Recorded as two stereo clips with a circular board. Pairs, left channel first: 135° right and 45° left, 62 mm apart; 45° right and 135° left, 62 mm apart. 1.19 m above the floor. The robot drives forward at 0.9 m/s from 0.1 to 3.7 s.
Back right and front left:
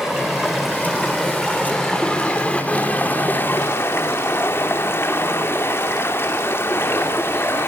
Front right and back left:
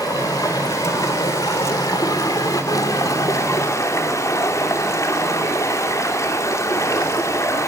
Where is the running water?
40° right, 4.5 m; by 7.7 s 85° right, 3 m.